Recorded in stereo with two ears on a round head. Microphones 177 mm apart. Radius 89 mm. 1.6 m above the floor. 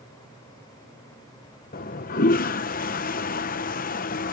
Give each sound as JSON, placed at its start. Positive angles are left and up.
{"t": 1.7, "sound": "a toilet flushing", "side_deg": 45}